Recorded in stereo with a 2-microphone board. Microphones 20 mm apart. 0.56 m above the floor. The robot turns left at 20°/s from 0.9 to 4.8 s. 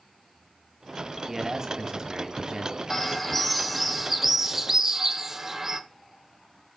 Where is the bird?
15° left, 0.7 m; by 5.8 s 25° right, 0.7 m.